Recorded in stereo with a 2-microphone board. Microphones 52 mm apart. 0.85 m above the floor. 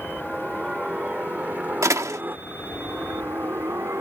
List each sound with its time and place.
0.0 s a helicopter: 15° right (ahead or behind); by 4.0 s 55° right (ahead or behind)
1.8 s a door slam: 80° right